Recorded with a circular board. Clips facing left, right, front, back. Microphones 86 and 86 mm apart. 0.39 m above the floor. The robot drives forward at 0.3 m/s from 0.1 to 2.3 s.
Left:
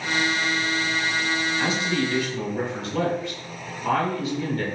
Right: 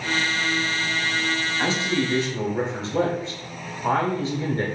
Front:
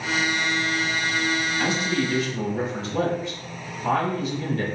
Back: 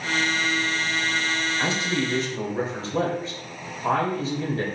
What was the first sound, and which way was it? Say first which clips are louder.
A man speaking: right 3 dB, front 1 dB; 130° right.